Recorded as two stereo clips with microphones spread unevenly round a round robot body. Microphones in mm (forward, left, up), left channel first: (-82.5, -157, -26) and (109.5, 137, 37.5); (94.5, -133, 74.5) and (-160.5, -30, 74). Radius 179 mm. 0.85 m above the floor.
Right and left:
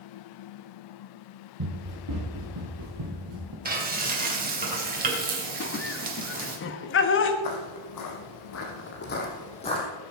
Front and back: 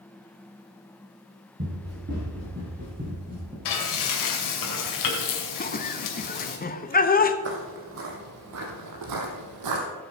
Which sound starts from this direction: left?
Running footsteps, at 1.6 s.